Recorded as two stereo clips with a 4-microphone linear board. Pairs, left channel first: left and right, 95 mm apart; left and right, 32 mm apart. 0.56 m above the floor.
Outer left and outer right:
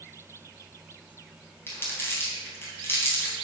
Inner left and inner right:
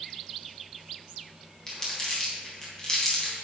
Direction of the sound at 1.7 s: 20° left (ahead or behind).